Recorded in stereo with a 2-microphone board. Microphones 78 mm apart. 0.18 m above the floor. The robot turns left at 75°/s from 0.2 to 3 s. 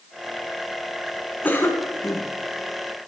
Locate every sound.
1.4 s a cough: 150° left, 1.7 m; by 2.3 s 90° left, 1.7 m